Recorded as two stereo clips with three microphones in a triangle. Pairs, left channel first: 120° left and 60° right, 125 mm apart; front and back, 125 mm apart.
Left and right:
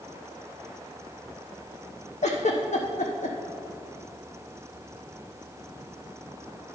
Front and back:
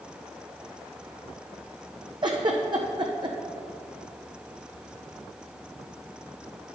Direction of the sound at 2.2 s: 130° left.